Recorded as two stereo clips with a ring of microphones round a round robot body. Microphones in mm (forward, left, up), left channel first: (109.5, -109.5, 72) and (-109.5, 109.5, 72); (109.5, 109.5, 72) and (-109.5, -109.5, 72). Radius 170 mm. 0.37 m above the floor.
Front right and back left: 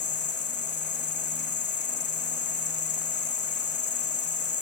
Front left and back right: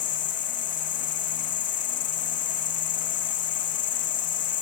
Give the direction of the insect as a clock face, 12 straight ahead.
12 o'clock.